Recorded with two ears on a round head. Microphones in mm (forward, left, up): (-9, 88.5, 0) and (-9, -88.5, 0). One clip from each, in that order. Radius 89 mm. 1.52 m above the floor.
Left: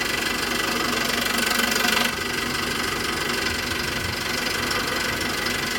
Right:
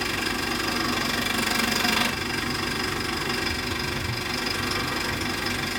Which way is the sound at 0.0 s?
25° left (ahead or behind).